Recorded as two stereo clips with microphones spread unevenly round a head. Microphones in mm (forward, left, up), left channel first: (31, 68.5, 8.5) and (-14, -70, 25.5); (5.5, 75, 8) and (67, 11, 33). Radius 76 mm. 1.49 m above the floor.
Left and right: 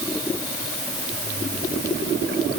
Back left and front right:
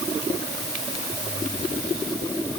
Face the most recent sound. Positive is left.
No sound to turn to.